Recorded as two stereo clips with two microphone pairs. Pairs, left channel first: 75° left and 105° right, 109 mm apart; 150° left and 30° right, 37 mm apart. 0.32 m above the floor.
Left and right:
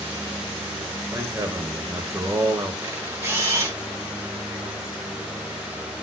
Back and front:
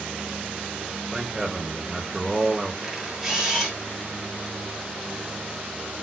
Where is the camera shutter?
90° right, 1.0 m.